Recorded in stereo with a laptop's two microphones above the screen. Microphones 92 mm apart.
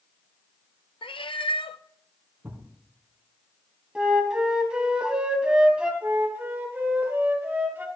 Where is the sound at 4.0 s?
10° right (ahead or behind), 3 m.